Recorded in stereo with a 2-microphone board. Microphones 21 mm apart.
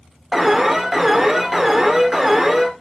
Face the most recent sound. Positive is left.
turn(degrees=-15)  # may be behind; listen again after turning